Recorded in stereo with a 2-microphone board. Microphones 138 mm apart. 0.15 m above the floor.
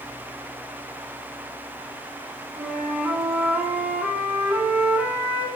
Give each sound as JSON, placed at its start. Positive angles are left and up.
{"t": 2.6, "sound": "a flute", "side_deg": -10, "distance_m": 1.8}